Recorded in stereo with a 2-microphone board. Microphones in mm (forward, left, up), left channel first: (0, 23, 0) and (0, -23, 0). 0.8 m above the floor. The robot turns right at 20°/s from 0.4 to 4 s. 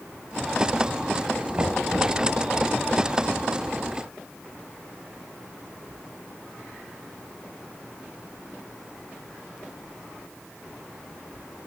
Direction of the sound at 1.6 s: 50° right (ahead or behind).